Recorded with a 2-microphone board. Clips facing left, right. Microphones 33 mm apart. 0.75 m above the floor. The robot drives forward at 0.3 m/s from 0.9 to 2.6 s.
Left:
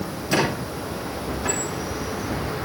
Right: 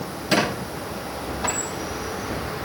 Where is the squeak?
60° right (ahead or behind), 6.5 m.